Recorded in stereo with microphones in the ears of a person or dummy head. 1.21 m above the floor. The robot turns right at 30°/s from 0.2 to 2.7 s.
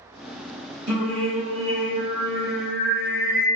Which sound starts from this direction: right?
Singing, at 0.9 s.